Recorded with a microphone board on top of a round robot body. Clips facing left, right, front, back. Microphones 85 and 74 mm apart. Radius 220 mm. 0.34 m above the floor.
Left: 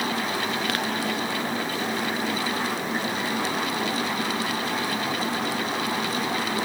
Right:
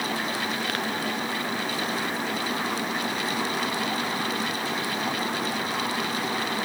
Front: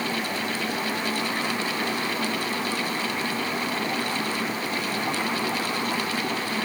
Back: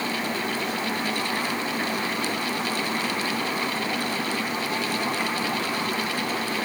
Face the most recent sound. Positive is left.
No sound to turn to.